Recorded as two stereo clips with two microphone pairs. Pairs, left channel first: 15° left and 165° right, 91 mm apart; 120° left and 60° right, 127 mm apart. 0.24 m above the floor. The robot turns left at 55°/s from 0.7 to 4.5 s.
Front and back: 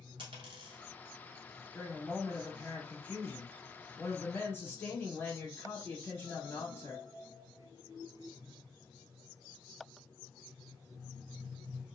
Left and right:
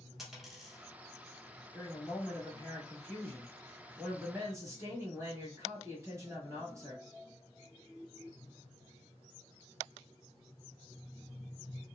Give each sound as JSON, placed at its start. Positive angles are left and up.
{"t": 0.2, "sound": "a dropped coin", "azimuth_deg": -145, "distance_m": 1.1}
{"t": 1.7, "sound": "a woman speaking", "azimuth_deg": 135, "distance_m": 1.1}